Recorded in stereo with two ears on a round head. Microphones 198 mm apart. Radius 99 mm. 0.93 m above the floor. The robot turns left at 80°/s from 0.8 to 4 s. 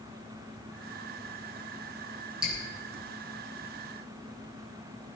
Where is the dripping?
5° right (ahead or behind), 6 m; by 2.6 s 10° left (ahead or behind), 6 m.